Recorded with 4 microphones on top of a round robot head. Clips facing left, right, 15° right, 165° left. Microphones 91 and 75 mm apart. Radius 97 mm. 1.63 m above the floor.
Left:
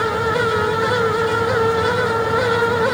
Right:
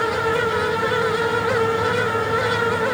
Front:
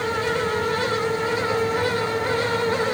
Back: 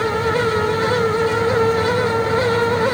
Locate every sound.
Only background noise.